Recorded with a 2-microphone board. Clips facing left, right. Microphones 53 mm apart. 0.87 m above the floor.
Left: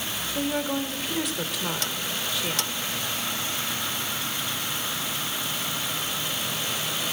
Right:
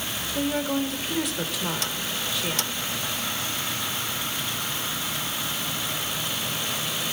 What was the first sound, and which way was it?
A woman speaking, centre (ahead or behind).